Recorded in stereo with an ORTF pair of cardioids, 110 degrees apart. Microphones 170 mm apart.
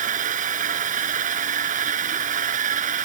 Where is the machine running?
50° right.